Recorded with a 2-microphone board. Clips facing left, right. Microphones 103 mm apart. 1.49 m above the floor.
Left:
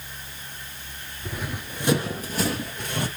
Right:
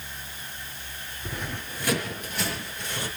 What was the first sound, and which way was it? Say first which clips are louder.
Running footsteps: left 2 dB; centre (ahead or behind).